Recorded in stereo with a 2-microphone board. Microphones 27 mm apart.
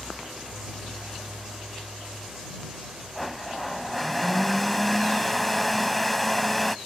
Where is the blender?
5° left (ahead or behind).